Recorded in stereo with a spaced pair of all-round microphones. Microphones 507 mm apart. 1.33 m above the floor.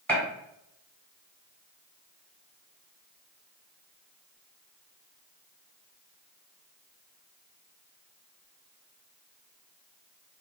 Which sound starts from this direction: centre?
A gunshot, at 0.1 s.